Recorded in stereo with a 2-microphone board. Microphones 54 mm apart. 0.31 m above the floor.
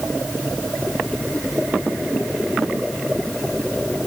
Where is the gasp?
I don't hear a gasp.